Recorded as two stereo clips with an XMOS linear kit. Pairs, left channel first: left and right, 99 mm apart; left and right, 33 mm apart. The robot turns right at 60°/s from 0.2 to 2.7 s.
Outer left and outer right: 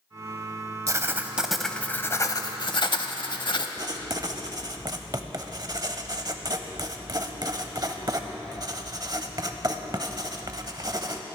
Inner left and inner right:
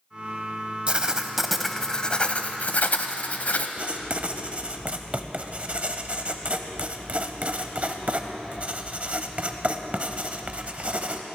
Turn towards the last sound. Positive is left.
turn(degrees=-40)  # may be behind; listen again after turning